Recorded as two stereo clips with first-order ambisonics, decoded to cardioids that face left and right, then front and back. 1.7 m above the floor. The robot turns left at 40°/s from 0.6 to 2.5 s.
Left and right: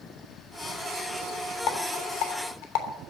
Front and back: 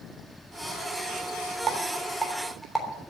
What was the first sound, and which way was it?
A rattle, 120° left.